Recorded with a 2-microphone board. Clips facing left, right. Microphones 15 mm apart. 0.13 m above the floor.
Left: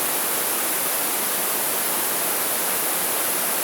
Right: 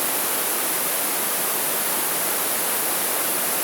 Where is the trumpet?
No trumpet in this recording.